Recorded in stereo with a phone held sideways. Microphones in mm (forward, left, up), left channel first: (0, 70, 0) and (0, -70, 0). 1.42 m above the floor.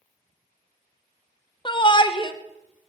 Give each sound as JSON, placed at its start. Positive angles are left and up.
{"t": 1.6, "sound": "a shout", "side_deg": 35, "distance_m": 0.7}